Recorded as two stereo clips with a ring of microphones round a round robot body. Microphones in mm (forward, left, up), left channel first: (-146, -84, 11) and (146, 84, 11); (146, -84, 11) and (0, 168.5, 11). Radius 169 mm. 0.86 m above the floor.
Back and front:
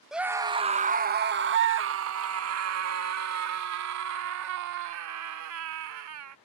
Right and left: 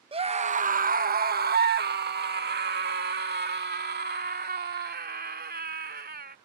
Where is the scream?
115° left; by 6.3 s 65° left.